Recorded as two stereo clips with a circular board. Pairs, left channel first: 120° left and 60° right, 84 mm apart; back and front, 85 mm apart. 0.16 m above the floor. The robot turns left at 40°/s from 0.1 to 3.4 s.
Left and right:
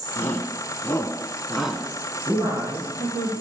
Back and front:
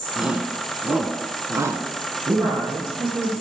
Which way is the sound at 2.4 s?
55° right.